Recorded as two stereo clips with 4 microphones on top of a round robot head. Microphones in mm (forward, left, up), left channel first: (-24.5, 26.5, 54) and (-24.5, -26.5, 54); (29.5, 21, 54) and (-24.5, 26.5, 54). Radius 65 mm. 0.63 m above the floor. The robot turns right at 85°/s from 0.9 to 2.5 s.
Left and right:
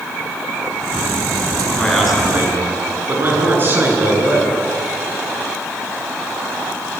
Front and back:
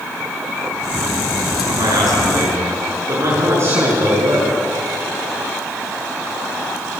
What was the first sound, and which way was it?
A man speaking, 155° left.